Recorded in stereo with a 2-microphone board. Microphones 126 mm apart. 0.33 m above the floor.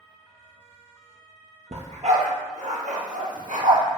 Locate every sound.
1.7 s a dog barking: 60° right (ahead or behind), 2.5 m; by 3.8 s 90° right, 2.5 m